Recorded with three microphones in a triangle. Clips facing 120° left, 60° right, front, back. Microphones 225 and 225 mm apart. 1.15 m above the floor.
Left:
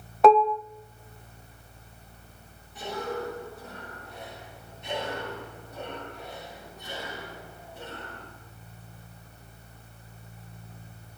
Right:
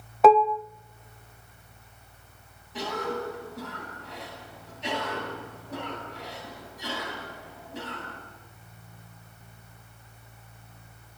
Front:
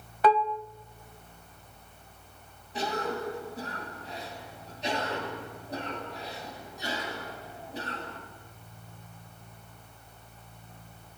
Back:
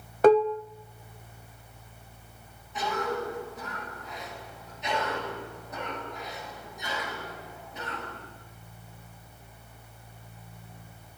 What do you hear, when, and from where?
0.2 s dishes clattering: 150° right, 0.5 m
2.7 s a cough: 55° right, 10 m